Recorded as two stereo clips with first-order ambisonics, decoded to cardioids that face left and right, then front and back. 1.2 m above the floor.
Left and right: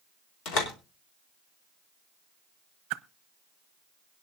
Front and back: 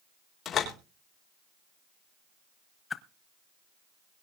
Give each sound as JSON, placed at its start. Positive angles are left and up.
{"t": 0.5, "sound": "a door slam", "azimuth_deg": 60, "distance_m": 3.5}
{"t": 2.9, "sound": "a whoosh", "azimuth_deg": -70, "distance_m": 0.7}